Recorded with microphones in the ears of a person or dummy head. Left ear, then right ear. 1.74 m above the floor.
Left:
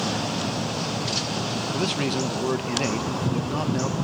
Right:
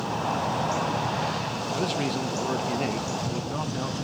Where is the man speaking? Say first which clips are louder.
Left 2 dB; 10° left (ahead or behind), 1.5 m.